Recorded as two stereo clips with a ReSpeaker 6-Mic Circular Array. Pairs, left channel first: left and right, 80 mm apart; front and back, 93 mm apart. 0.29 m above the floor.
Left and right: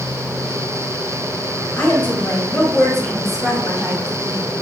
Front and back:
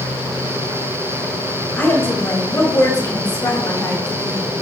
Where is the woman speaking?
50° left, 1.6 m; by 4.5 s 15° right, 2.5 m.